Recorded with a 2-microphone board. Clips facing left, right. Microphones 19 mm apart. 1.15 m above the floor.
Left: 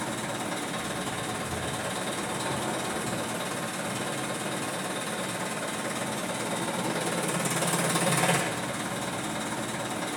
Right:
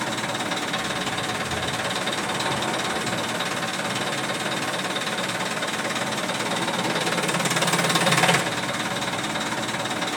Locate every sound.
0.0 s an engine running: 45° right (ahead or behind), 0.7 m